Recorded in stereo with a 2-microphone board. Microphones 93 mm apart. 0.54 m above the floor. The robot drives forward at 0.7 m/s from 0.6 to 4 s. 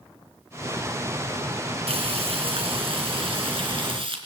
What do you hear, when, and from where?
1.9 s frying: 75° right (ahead or behind), 4.5 m; by 4.2 s 60° right (ahead or behind), 5 m